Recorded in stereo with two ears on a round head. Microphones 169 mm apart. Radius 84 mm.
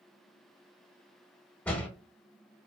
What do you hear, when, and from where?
1.6 s a door slam: 10° left (ahead or behind), 0.7 m